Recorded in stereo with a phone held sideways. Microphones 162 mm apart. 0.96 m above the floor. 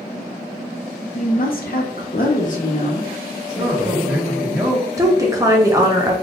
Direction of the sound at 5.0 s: 20° right (ahead or behind).